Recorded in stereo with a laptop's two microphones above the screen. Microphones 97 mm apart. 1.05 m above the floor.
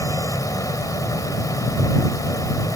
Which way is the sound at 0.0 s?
40° left (ahead or behind).